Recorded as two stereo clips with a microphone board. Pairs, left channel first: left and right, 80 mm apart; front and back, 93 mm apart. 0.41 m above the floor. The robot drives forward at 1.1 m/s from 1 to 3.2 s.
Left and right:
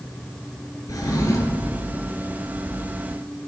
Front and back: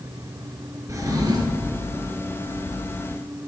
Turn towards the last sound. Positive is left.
turn(degrees=160)